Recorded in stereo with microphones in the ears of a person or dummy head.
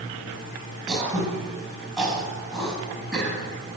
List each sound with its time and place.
0.9 s throat clearing: centre (ahead or behind), 4.5 m